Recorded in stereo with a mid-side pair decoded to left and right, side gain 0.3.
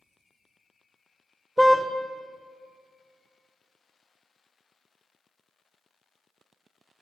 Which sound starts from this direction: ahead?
A car horn, at 1.6 s.